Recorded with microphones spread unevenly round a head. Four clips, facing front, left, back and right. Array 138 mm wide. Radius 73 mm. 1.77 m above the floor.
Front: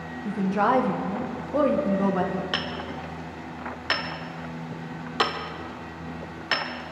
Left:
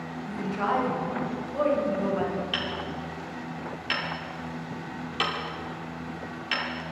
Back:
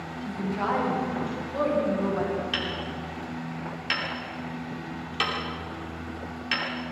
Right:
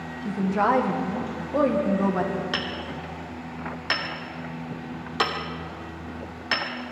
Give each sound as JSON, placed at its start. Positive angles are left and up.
{"t": 0.2, "sound": "a woman speaking", "azimuth_deg": -45, "distance_m": 2.0}
{"t": 2.5, "sound": "hammering", "azimuth_deg": -35, "distance_m": 2.0}